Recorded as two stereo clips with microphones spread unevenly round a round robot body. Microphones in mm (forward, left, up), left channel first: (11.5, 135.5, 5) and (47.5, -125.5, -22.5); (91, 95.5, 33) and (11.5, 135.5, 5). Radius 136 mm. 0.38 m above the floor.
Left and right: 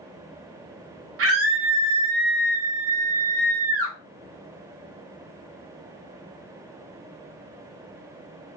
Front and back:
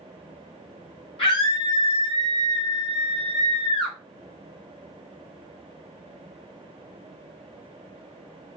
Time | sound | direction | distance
1.2 | a scream | 70° right | 1.3 m